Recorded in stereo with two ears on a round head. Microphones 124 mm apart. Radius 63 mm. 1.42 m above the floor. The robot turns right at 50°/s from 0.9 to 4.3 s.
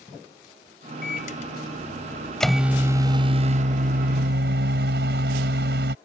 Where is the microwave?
105° left; by 6.0 s 90° right.